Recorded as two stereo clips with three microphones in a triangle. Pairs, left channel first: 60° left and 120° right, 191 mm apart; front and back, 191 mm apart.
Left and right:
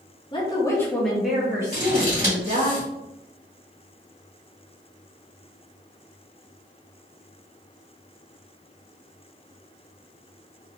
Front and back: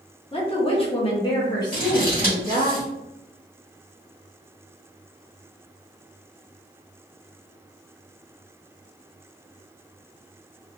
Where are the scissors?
30° left, 1.7 m.